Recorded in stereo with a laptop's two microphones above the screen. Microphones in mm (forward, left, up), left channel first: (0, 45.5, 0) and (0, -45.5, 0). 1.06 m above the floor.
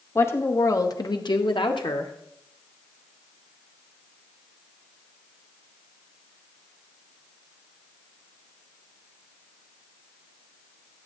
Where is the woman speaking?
25° left (ahead or behind), 1.6 m; by 2.1 s 55° left (ahead or behind), 1.1 m.